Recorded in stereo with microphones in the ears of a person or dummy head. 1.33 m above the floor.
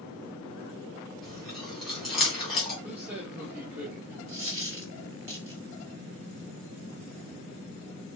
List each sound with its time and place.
1.2 s chewing: centre (ahead or behind), 3 m
2.8 s a man speaking: 10° right (ahead or behind), 1.8 m
4.3 s a dropped coin: 20° right (ahead or behind), 2.5 m